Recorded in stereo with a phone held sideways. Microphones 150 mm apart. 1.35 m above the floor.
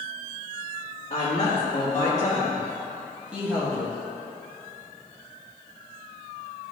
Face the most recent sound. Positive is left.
turn(degrees=-20)  # may be behind; listen again after turning